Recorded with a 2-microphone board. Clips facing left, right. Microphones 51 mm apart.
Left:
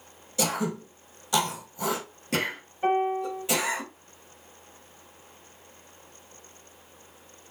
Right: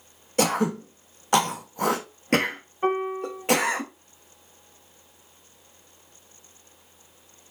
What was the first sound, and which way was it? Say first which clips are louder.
Throat clearing: right 5 dB; 45° right (ahead or behind).